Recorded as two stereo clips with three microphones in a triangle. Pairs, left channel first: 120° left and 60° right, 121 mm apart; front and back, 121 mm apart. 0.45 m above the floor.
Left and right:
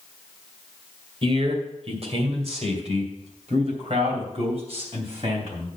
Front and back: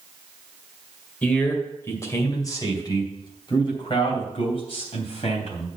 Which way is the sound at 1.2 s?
75° right.